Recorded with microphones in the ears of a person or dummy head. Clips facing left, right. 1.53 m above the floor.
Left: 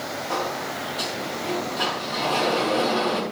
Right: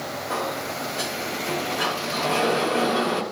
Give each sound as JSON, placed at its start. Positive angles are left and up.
{"t": 0.3, "sound": "a sliding door", "side_deg": -30, "distance_m": 3.0}